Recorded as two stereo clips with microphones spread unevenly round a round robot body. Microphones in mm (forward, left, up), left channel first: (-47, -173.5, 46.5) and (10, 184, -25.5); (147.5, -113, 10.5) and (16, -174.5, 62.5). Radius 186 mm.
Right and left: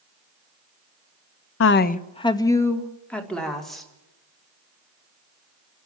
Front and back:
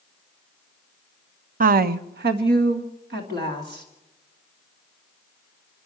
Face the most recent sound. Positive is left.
turn(degrees=170)